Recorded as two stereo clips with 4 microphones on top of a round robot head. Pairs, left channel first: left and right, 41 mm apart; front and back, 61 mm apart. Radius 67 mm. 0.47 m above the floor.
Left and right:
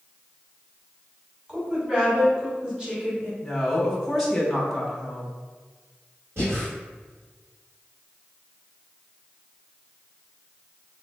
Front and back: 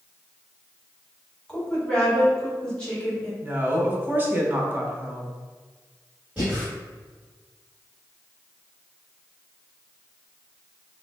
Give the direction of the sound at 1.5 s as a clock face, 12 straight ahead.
2 o'clock.